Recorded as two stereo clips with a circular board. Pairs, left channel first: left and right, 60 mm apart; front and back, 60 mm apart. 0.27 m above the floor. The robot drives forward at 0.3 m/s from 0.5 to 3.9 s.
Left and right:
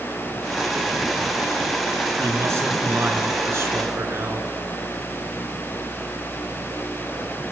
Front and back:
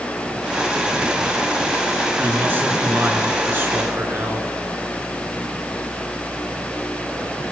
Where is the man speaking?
125° right, 4 m; by 4.5 s 130° right, 4.5 m.